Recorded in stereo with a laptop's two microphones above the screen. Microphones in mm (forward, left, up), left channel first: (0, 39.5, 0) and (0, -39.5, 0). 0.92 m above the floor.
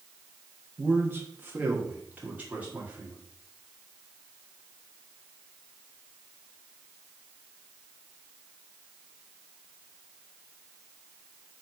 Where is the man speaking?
25° right (ahead or behind), 1.0 m; by 3.2 s 20° right (ahead or behind), 2.5 m.